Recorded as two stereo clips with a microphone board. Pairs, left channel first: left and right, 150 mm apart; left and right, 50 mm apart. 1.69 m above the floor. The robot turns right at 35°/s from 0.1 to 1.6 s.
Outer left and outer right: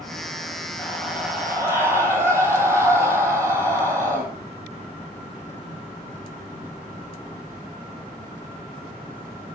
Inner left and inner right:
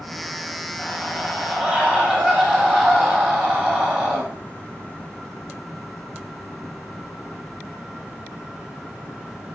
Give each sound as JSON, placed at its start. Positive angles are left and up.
{"t": 0.8, "sound": "a scream", "side_deg": 10, "distance_m": 9.5}